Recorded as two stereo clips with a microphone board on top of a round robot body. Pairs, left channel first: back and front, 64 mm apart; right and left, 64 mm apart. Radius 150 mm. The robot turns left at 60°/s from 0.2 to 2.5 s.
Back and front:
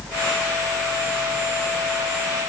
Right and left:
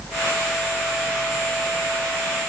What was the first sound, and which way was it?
Only background noise.